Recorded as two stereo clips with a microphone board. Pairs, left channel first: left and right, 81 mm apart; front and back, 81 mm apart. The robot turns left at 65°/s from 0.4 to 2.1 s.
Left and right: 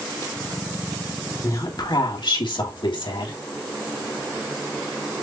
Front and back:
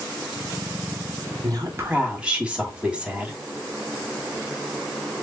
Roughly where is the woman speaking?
Behind left.